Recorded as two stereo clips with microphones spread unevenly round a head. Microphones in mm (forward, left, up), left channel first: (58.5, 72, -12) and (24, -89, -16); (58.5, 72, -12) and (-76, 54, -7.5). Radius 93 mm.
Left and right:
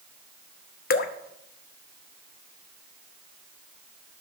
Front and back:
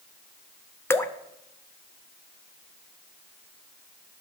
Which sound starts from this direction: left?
Dripping, at 0.9 s.